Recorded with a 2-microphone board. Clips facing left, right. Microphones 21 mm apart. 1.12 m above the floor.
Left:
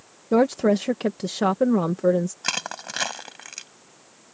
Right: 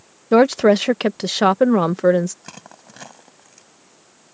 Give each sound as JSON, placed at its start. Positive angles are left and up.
{"t": 0.3, "sound": "a woman speaking", "side_deg": -50}
{"t": 2.4, "sound": "crushing", "side_deg": 70}